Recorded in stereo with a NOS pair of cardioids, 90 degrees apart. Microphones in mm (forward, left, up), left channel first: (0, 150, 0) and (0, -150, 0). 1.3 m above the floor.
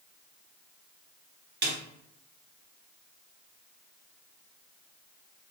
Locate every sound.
1.6 s a snare drum: 35° right, 1.3 m